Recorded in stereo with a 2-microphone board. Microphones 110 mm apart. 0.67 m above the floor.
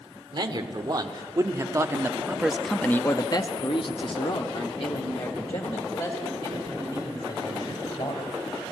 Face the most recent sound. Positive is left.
turn(degrees=60)  # may be behind; listen again after turning